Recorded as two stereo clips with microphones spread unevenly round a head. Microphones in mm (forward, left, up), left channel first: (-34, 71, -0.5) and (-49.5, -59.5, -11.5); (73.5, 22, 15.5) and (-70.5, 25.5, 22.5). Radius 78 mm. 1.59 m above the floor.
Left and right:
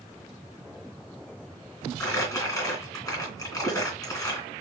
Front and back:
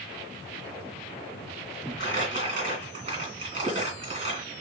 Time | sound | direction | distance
2.0 | crumpling | 140° left | 2.5 m